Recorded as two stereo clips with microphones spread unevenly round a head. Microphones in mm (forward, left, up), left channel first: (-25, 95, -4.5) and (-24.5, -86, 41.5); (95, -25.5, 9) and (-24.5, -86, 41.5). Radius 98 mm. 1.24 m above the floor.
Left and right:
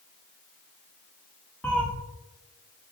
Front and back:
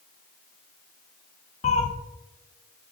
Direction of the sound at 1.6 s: 10° right.